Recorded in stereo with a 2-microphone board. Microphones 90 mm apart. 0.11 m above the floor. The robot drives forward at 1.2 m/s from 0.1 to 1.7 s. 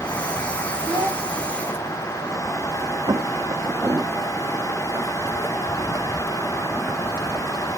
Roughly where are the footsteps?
Right.